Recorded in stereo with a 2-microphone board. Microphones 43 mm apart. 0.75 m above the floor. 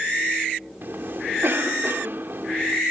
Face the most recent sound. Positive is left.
turn(degrees=-60)  # may be behind; listen again after turning